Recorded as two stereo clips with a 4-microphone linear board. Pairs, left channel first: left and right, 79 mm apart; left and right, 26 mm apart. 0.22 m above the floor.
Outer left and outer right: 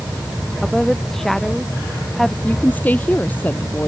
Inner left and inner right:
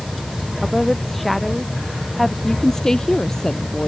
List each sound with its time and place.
0.6 s a woman speaking: 5° left (ahead or behind)
2.4 s a woman speaking: 20° left (ahead or behind)